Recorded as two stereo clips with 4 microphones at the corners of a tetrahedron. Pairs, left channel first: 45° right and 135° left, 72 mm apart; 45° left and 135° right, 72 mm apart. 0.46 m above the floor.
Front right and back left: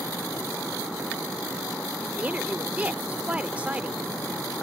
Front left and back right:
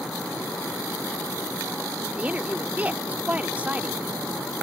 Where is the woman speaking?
Straight behind.